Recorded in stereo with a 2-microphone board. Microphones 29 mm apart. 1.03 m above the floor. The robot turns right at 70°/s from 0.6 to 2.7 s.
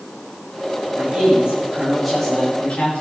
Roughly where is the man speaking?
Right.